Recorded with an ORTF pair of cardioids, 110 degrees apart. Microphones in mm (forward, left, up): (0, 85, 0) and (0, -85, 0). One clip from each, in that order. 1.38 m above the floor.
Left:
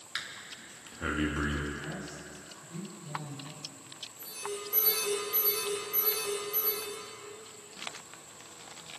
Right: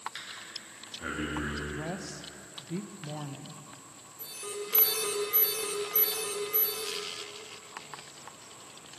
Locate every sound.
0.1 s breathing: 30° left, 3 m
1.7 s a woman speaking: 70° right, 1.4 m
4.2 s an alarm: 30° right, 6.5 m